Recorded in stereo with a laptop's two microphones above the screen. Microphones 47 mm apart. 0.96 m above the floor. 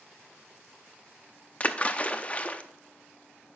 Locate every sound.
1.6 s a splash: 30° left (ahead or behind), 0.6 m